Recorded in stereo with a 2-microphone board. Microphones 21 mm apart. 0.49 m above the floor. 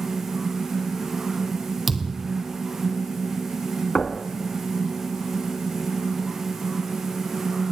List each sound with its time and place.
1.9 s a thud: 15° right (ahead or behind), 2 m
4.0 s knocking: 45° left (ahead or behind), 3.5 m